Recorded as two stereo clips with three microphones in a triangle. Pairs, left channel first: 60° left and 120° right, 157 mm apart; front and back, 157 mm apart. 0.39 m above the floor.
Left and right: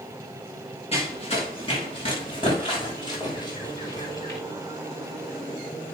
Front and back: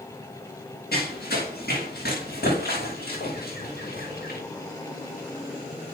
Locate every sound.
0.9 s running footsteps: 10° left, 7.5 m; by 4.4 s 5° right, 7.5 m